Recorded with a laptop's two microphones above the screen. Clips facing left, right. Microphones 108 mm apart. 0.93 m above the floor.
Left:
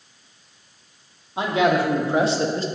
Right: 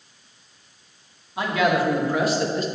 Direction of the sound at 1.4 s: 25° left (ahead or behind).